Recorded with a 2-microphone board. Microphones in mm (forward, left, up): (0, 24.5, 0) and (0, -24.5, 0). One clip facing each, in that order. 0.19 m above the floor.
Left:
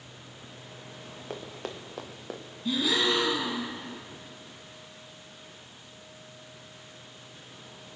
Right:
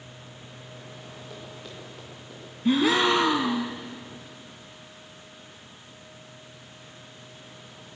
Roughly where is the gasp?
Right.